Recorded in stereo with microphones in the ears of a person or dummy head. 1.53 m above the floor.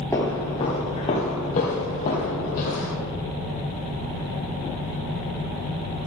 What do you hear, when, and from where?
0.1 s footsteps: 15° left (ahead or behind), 2 m; by 2.9 s 50° left (ahead or behind), 4.5 m